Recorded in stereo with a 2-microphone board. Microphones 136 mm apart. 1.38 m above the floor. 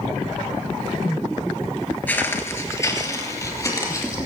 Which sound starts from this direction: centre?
Footsteps, at 2.1 s.